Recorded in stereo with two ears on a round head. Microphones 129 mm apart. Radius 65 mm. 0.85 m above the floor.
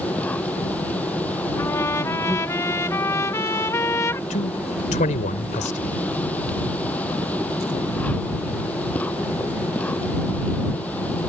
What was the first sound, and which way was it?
An insect, 10° left (ahead or behind).